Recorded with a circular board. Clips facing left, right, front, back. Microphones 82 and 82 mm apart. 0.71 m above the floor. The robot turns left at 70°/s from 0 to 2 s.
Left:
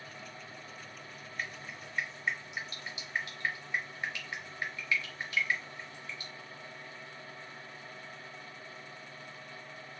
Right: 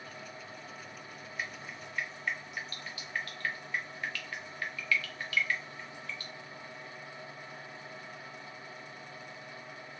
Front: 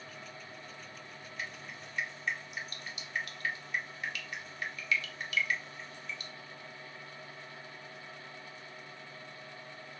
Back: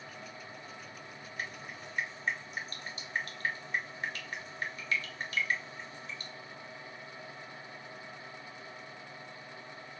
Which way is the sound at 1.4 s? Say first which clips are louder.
Even, back 2 dB; 165° right.